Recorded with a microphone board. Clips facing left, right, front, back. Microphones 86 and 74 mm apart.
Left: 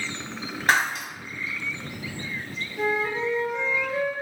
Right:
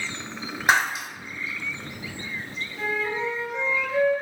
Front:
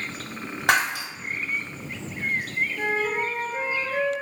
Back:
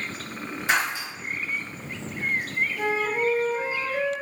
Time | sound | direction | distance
0.7 | breaking glass | 10° right | 1.1 m
2.8 | a flute | 20° left | 1.2 m